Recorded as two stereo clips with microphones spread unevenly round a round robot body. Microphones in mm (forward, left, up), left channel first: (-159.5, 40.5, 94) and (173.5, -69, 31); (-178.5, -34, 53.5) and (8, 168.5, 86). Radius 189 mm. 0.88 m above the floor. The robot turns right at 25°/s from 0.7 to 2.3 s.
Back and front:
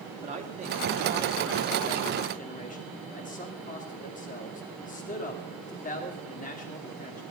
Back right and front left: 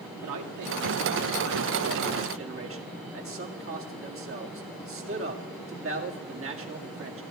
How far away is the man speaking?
About 2 m.